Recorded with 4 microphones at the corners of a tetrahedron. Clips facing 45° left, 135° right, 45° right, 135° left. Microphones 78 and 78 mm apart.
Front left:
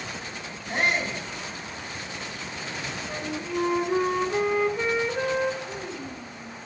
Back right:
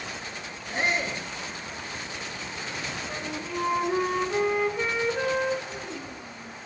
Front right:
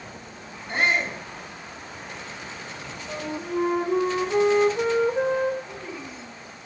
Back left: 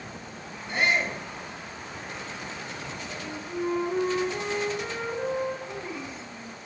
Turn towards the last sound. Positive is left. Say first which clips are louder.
# front left 2 dB, back left 1 dB
turn(degrees=75)